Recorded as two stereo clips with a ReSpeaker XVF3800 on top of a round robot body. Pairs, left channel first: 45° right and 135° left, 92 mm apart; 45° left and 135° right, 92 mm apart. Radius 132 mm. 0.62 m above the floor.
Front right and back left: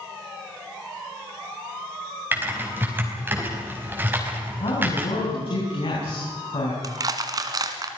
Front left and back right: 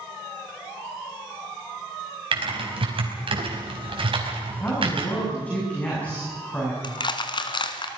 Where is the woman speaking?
30° right, 7.5 m.